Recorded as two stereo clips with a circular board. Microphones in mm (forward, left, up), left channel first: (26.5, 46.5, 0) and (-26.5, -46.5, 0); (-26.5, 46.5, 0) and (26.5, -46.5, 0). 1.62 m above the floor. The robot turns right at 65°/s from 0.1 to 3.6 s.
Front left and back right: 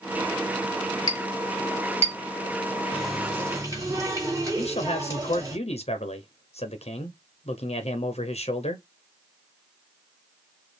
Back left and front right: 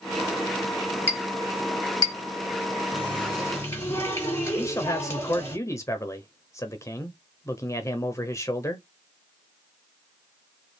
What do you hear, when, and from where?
1.1 s a clink: 10° left, 3.5 m; by 2.1 s 80° left, 3.5 m
2.9 s a running tap: 140° left, 3 m; by 5.6 s straight behind, 3 m
4.6 s a man speaking: 55° left, 0.7 m